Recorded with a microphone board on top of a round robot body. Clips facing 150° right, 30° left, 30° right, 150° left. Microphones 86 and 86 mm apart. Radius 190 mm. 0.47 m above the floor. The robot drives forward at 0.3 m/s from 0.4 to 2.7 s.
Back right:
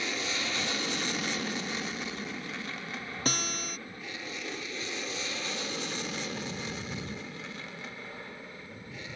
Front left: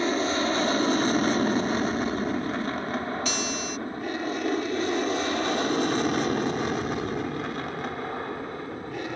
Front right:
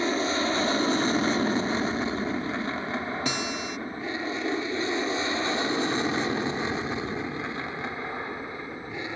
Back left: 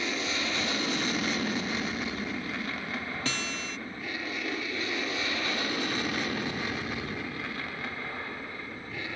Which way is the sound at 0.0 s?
10° left.